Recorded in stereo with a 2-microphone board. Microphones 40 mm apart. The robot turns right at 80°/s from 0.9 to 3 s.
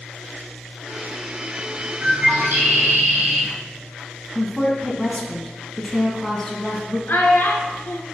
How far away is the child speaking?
About 1.6 m.